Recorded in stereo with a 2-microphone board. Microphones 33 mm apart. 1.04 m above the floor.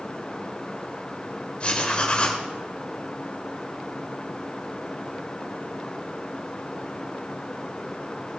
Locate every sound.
1.6 s writing: 35° left (ahead or behind), 1.7 m